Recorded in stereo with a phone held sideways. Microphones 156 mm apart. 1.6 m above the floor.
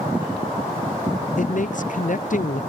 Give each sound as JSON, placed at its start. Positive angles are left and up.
{"t": 1.4, "sound": "a man speaking", "side_deg": 60}